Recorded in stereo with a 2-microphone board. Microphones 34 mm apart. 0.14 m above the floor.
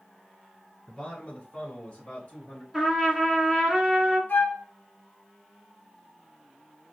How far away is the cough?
No cough in this recording.